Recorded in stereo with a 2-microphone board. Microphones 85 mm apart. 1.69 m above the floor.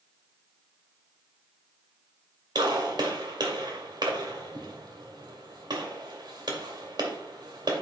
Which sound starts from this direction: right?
A gunshot, at 2.5 s.